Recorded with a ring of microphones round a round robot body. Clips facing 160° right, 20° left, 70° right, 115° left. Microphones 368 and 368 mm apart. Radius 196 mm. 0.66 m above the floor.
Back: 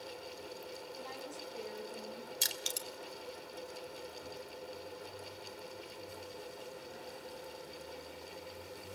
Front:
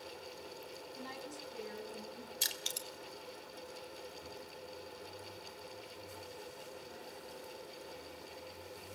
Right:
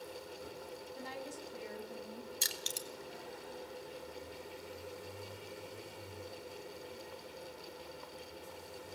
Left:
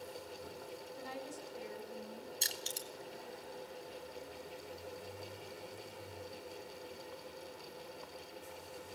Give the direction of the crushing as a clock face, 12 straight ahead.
5 o'clock.